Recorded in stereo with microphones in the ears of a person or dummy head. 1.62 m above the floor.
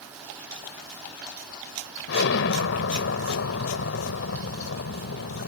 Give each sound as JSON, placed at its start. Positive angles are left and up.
{"t": 2.1, "sound": "an explosion", "side_deg": 80}